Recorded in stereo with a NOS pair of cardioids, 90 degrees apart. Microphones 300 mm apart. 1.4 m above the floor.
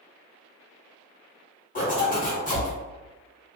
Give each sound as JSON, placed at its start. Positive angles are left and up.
{"t": 1.8, "sound": "a zipper", "azimuth_deg": 25, "distance_m": 1.3}